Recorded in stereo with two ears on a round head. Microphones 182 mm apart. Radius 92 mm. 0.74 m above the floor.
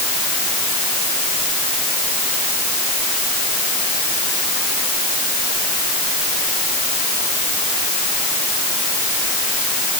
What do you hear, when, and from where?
Only background noise.